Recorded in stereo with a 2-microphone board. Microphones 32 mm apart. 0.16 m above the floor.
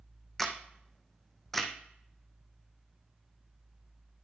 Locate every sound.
0.4 s a camera shutter: 10° left (ahead or behind), 1.6 m